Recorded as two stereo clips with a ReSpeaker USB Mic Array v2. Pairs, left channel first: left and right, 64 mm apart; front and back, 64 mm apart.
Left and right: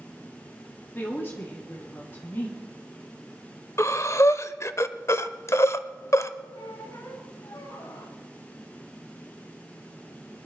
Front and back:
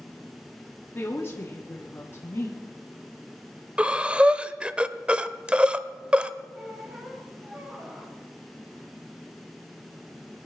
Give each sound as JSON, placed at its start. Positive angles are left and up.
{"t": 0.9, "sound": "a woman speaking", "azimuth_deg": 40, "distance_m": 1.6}
{"t": 3.8, "sound": "breathing", "azimuth_deg": 115, "distance_m": 0.5}
{"t": 6.5, "sound": "a squeak", "azimuth_deg": 105, "distance_m": 2.5}